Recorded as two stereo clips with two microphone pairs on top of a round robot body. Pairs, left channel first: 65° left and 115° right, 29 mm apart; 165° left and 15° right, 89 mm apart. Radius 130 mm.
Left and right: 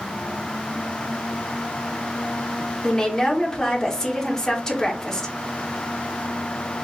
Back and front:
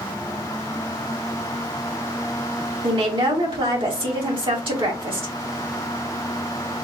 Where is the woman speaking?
10° right, 2 m.